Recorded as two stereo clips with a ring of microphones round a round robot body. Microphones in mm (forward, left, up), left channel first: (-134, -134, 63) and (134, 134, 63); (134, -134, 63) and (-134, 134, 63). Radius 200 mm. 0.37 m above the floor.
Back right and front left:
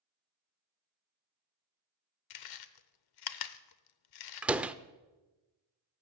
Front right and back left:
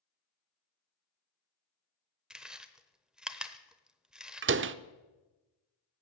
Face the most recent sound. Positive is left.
turn(degrees=130)